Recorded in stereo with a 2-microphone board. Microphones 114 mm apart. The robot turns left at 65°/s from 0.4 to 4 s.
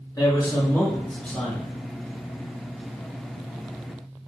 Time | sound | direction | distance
0.2 | a man speaking | 70° left | 1.6 m